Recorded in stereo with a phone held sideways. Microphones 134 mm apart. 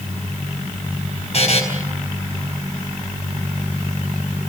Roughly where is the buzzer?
Left.